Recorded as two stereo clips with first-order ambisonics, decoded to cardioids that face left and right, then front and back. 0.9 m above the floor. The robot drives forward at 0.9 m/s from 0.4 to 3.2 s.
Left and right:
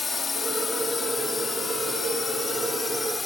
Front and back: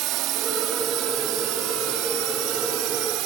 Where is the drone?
160° left; by 3.3 s 165° left.